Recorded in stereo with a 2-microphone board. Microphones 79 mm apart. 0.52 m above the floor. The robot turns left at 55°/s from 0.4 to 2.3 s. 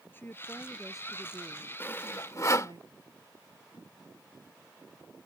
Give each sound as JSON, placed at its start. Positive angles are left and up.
{"t": 0.1, "sound": "a woman speaking", "azimuth_deg": 30}
{"t": 1.8, "sound": "sawing", "side_deg": 25}